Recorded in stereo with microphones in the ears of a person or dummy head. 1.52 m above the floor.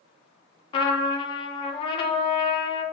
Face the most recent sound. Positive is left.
turn(degrees=35)  # may be behind; listen again after turning